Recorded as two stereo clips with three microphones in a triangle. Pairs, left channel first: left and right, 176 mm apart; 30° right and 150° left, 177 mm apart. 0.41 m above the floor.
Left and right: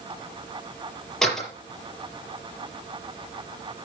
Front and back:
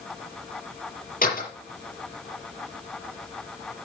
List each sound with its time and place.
1.2 s a door slam: straight ahead, 6 m